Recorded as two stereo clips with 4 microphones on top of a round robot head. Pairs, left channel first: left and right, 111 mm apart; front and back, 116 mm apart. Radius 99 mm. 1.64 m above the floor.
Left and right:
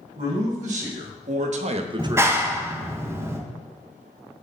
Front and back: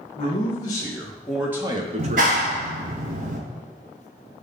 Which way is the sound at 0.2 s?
60° right.